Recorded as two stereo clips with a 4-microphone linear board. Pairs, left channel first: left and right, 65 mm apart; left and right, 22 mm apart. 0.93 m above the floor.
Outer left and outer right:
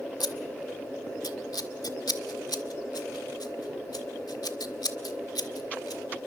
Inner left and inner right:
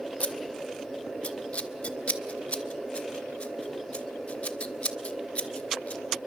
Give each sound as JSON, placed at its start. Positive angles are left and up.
{"t": 0.2, "sound": "scissors", "side_deg": 85, "distance_m": 1.5}